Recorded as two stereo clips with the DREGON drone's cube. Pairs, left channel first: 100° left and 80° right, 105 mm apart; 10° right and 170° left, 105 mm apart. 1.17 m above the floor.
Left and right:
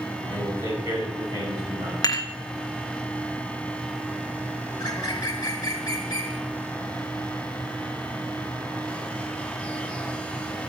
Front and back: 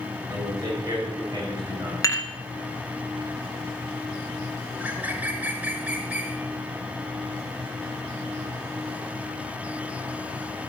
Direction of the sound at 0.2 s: 130° right.